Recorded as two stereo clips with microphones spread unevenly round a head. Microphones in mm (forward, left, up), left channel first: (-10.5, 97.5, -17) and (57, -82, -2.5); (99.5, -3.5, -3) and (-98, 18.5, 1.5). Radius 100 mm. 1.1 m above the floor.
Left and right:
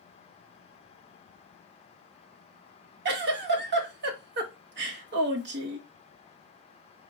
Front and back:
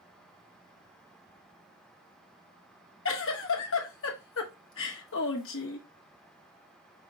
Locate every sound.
3.0 s a giggle: 35° right, 1.1 m